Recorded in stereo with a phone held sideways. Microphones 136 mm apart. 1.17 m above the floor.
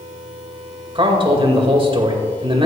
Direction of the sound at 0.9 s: 40° right (ahead or behind).